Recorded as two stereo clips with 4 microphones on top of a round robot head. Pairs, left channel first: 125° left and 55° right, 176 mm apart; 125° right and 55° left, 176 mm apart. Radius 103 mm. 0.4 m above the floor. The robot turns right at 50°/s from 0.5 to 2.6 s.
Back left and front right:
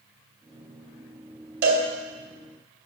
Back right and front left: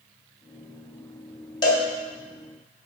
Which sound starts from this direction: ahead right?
A cowbell, at 1.6 s.